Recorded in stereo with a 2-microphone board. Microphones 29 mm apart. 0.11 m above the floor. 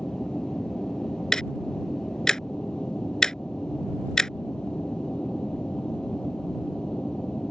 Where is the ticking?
25° left (ahead or behind).